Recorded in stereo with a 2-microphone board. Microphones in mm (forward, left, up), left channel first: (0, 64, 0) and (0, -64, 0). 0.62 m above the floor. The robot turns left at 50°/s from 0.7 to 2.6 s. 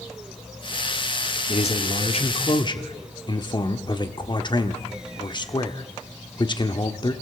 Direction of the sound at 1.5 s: 105° left.